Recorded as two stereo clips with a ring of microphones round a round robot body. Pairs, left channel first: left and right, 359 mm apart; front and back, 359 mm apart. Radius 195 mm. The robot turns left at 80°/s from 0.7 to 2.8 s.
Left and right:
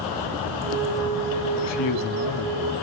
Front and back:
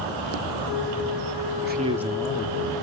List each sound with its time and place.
1.6 s a man speaking: 125° left, 1.3 m; by 2.8 s 30° left, 1.3 m